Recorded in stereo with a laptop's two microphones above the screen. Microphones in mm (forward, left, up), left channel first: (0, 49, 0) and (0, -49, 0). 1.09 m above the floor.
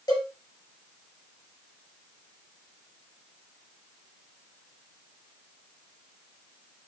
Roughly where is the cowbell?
Left.